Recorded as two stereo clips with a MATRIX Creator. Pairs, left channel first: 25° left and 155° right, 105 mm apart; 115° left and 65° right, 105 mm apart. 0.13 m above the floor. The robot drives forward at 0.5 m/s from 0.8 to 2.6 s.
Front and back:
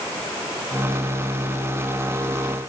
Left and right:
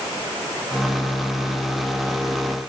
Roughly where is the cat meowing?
No cat meowing in this recording.